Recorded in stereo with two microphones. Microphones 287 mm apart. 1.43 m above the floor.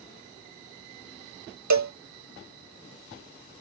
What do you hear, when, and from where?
1.7 s a cowbell: 70° right (ahead or behind)